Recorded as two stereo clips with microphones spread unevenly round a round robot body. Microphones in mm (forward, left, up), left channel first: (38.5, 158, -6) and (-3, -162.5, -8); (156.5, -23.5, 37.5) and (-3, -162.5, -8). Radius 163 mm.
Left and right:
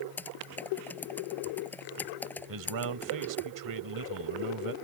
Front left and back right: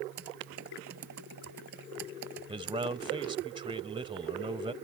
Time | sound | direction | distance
0.2 | typing on a keyboard | 165° left | ?
2.5 | a man speaking | 80° right | ?